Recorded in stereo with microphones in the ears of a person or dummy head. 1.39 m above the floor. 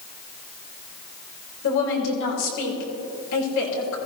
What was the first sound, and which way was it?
A woman speaking, 70° left (ahead or behind).